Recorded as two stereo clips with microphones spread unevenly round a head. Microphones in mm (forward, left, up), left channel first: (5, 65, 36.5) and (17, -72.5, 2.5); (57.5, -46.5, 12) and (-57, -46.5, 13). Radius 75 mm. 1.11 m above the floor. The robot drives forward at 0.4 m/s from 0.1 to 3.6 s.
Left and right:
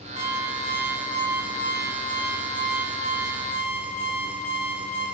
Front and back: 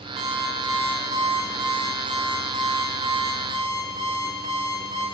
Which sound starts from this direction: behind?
An alarm clock, at 0.2 s.